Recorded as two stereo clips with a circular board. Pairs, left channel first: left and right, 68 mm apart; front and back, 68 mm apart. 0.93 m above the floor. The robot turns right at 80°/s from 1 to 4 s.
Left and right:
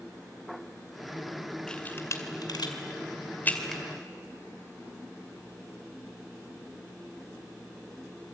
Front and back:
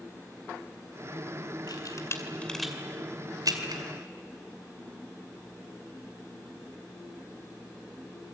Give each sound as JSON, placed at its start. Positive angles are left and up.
{"t": 1.7, "sound": "a camera shutter", "azimuth_deg": 10, "distance_m": 2.5}